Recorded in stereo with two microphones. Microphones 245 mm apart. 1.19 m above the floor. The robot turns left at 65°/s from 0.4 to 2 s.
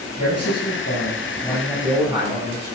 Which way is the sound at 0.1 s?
85° left.